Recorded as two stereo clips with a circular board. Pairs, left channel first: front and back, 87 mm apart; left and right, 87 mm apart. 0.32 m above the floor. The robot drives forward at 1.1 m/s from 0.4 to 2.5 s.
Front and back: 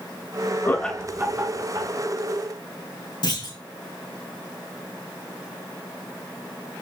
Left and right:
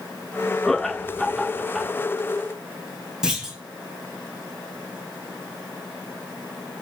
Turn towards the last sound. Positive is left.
turn(degrees=-10)